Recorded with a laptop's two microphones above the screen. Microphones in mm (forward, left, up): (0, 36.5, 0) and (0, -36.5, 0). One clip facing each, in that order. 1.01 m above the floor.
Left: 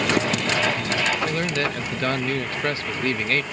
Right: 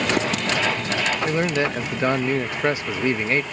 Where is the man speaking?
15° right (ahead or behind).